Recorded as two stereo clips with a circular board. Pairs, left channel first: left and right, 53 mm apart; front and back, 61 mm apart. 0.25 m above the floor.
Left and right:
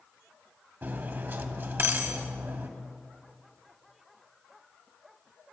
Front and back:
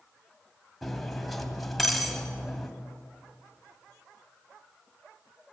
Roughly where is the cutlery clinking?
Right.